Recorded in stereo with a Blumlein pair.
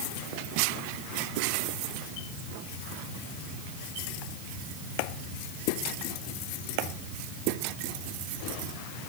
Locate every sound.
Only background noise.